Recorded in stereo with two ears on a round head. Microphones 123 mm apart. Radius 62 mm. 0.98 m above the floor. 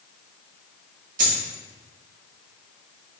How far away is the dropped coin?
About 1.3 m.